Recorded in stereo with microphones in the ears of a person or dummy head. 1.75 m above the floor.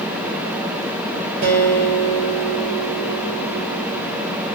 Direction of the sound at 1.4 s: 50° right (ahead or behind).